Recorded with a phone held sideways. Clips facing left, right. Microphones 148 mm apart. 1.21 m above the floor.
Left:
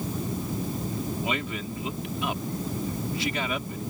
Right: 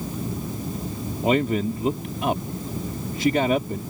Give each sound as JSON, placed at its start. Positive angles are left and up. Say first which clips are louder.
{"t": 1.2, "sound": "a man speaking", "louder": "right 10 dB", "side_deg": -45}